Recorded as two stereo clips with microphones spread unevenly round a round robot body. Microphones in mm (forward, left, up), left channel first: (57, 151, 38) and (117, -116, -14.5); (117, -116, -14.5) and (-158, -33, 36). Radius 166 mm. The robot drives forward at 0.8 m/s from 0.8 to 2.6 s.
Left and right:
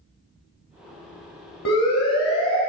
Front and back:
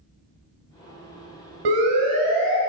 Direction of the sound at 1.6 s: 165° left.